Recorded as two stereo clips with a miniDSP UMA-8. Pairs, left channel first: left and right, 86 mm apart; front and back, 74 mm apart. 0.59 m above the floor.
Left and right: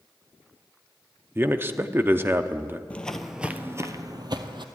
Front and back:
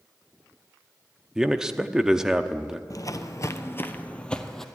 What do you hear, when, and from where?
1.4 s a man speaking: 110° right, 0.6 m
2.9 s footsteps: 20° left, 0.9 m; by 4.7 s 85° right, 1.2 m